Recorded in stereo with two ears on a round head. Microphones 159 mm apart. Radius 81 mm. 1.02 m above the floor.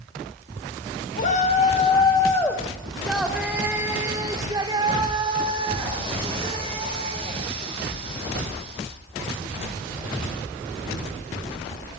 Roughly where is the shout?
Left.